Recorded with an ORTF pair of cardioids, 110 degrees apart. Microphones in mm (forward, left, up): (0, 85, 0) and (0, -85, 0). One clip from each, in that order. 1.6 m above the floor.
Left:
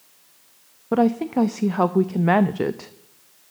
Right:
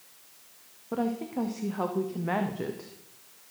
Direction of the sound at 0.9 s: 50° left.